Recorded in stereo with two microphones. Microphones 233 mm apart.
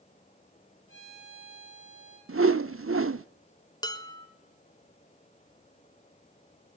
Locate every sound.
0.9 s a violin: 80° right, 9 m
2.3 s a whoosh: 65° right (ahead or behind), 0.8 m
3.8 s dishes clattering: 15° left (ahead or behind), 2 m